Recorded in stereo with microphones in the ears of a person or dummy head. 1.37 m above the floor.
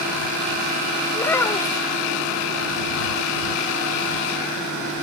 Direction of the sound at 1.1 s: 10° left (ahead or behind).